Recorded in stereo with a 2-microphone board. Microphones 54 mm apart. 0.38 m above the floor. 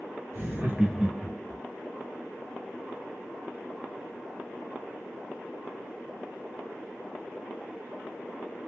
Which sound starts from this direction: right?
Laughter, at 0.3 s.